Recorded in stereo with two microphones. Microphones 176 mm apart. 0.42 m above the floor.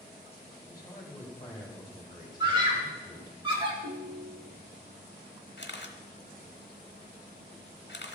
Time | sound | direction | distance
0.7 | a man speaking | 25° left (ahead or behind) | 1.9 m
2.4 | a scream | 25° right (ahead or behind) | 1.5 m
3.8 | a ringtone | 60° right (ahead or behind) | 1.7 m
5.6 | a camera shutter | 85° left | 0.7 m